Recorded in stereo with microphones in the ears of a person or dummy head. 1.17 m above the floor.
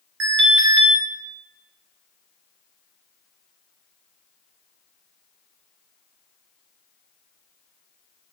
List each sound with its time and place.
0.2 s an alarm: 60° right (ahead or behind), 2.5 m